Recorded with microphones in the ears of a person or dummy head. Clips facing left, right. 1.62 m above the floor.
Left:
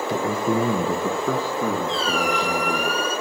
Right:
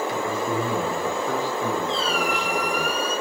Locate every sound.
0.1 s a man speaking: 30° left (ahead or behind), 1.0 m; by 2.9 s 80° left, 2.5 m
1.9 s a squeak: 70° left (ahead or behind), 6.5 m